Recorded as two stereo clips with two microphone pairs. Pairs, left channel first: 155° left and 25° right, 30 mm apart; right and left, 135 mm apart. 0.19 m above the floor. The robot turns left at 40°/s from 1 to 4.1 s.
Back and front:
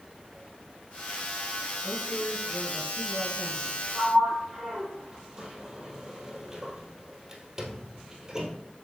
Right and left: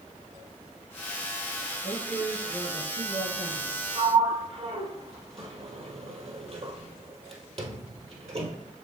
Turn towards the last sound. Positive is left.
turn(degrees=50)